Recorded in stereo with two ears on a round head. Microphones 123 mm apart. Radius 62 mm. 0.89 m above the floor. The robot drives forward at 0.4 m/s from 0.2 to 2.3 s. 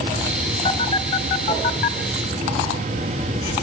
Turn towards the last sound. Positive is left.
turn(degrees=50)  # may be behind; listen again after turning